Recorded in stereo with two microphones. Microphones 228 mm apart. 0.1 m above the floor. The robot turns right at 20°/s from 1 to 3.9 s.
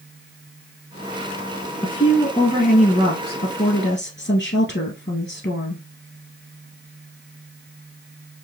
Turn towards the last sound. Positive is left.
turn(degrees=70)